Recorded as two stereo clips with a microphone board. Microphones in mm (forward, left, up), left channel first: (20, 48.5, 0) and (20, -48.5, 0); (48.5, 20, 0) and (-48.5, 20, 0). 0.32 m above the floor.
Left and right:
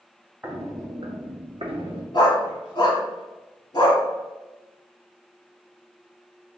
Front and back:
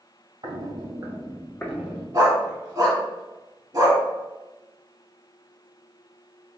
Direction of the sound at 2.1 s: 130° left.